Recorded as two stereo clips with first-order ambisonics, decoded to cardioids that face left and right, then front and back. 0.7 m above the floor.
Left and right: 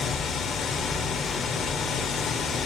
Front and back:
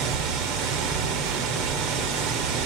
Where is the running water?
155° left, 2 m.